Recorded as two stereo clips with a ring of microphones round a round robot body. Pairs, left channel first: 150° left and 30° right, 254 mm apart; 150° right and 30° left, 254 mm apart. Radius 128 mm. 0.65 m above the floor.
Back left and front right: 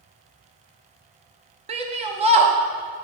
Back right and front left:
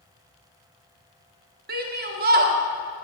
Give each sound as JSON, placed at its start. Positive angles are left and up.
{"t": 1.7, "sound": "a shout", "azimuth_deg": 20, "distance_m": 0.6}